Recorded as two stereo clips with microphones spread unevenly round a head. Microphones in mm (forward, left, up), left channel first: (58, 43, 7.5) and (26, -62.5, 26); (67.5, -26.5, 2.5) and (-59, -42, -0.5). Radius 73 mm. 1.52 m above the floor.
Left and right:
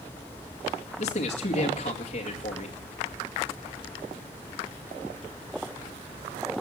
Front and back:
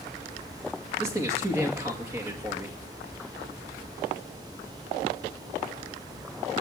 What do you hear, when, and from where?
1.0 s a man speaking: 115° left, 2 m